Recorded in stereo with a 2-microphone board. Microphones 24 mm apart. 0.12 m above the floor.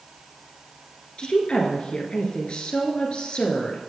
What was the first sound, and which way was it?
A woman speaking, 45° left (ahead or behind).